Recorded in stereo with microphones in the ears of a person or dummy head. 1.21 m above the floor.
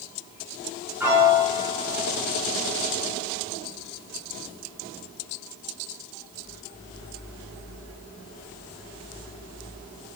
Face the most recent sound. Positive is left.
turn(degrees=-5)  # may be behind; listen again after turning